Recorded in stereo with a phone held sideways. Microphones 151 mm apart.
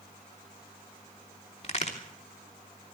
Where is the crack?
45° left (ahead or behind), 3 m.